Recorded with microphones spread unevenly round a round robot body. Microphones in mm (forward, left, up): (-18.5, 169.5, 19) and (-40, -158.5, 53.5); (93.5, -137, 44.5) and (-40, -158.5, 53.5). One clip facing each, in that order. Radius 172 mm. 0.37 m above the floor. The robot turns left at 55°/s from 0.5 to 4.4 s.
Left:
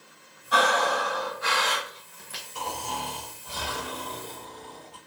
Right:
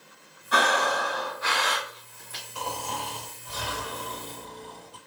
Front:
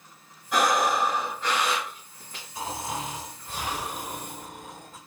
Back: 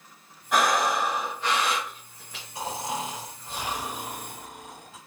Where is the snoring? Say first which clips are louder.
Even, back 1 dB; 130° left, 2 m; by 5.0 s 30° left, 2 m.